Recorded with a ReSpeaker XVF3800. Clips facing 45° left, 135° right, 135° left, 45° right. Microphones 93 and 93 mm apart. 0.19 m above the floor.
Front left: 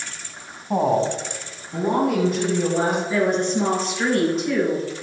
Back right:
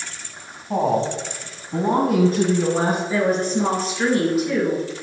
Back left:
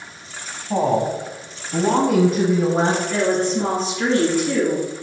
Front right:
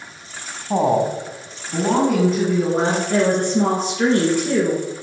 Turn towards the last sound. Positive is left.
turn(degrees=-50)